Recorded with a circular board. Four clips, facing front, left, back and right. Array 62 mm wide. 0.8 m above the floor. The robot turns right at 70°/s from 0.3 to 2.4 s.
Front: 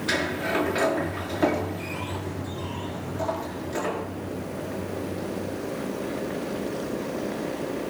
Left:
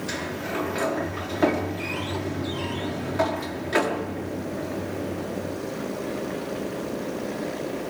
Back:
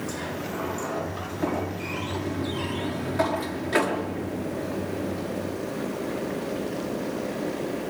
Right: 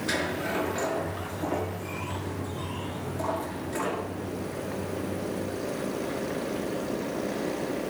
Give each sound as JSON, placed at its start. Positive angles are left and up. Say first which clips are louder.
{"t": 0.1, "sound": "a sliding door", "louder": "right 3 dB, front 6 dB", "azimuth_deg": -15, "distance_m": 5.5}